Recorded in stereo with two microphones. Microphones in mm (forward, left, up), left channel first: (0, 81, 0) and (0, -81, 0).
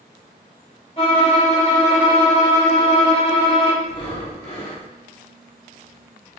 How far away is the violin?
About 1.3 m.